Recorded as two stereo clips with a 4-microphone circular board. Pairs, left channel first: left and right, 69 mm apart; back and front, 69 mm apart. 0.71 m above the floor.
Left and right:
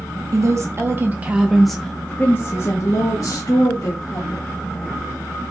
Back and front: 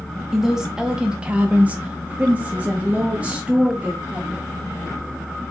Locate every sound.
0.3 s a woman speaking: 80° right, 0.9 m; by 4.5 s 70° left, 1.7 m